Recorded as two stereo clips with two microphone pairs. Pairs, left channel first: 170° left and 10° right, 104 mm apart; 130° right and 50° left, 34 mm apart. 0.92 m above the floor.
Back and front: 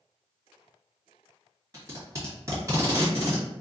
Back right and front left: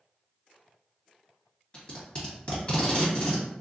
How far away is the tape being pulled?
About 1.4 m.